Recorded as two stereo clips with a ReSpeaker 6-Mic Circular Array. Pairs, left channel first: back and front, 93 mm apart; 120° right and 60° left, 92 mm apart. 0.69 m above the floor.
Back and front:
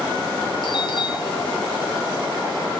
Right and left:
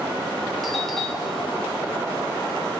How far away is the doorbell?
About 3 m.